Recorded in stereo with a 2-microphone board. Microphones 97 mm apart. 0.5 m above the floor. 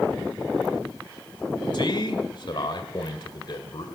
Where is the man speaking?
55° left (ahead or behind), 1.7 m.